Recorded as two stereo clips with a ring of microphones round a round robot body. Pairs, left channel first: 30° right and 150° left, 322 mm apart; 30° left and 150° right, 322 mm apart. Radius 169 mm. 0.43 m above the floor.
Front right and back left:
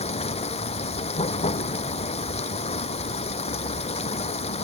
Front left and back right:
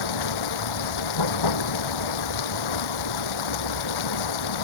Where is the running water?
40° left.